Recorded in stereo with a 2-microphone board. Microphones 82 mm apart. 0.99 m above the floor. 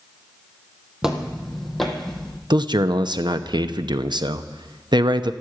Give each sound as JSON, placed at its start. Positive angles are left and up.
{"t": 1.0, "sound": "footsteps", "side_deg": -5, "distance_m": 1.9}
{"t": 2.5, "sound": "a man speaking", "side_deg": -65, "distance_m": 0.8}